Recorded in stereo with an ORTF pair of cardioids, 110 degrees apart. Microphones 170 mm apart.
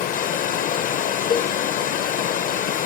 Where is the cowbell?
45° left, 0.7 m.